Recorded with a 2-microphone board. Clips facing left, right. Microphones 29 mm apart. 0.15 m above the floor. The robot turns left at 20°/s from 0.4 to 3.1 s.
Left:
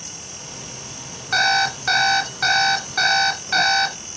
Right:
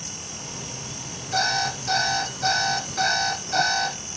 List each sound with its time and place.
1.3 s an alarm clock: 100° left, 1.4 m; by 4.0 s 65° left, 1.4 m